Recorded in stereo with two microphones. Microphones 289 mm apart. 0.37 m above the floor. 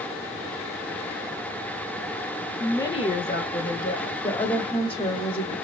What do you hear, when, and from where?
2.6 s a woman speaking: centre (ahead or behind), 0.8 m; by 4.1 s 50° left (ahead or behind), 1.4 m
4.2 s a woman speaking: 20° left (ahead or behind), 1.2 m